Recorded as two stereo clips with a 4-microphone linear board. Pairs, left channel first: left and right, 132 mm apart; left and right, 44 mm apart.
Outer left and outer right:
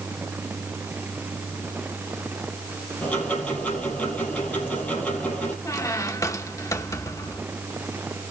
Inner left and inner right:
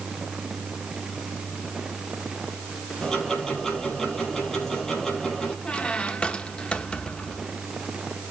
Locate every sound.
3.0 s ticking: 10° left (ahead or behind), 5 m
5.7 s a squeak: 25° left (ahead or behind), 0.9 m